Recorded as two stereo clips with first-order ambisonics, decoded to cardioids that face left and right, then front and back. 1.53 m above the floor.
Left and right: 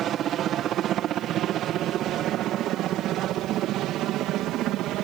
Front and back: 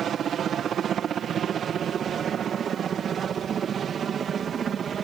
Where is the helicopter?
130° right; by 5.0 s 120° right.